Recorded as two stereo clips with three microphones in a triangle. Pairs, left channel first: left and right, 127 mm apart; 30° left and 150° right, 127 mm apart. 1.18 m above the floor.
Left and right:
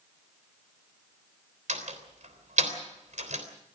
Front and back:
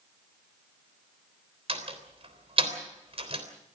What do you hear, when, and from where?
1.7 s a door slam: 110° right, 3.5 m